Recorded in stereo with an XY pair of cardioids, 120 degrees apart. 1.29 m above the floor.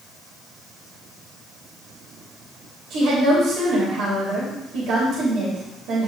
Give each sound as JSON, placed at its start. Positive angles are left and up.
{"t": 2.9, "sound": "a woman speaking", "azimuth_deg": -70, "distance_m": 3.5}